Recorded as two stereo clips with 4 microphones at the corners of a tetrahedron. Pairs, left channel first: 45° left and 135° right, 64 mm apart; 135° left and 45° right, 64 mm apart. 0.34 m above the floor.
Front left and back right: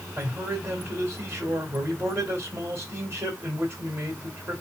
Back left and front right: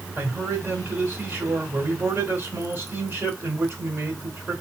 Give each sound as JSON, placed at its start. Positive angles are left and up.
{"t": 0.2, "sound": "a man speaking", "azimuth_deg": -100, "distance_m": 2.0}